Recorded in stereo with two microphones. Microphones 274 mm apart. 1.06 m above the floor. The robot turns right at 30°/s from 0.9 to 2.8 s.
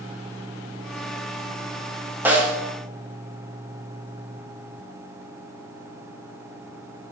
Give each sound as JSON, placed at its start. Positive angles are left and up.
{"t": 2.2, "sound": "a snare drum", "side_deg": -5, "distance_m": 0.8}